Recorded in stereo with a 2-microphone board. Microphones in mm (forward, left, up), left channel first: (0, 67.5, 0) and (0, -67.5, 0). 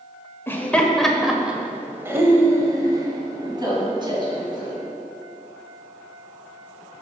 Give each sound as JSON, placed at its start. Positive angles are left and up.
{"t": 0.5, "sound": "laughter", "side_deg": 15, "distance_m": 1.2}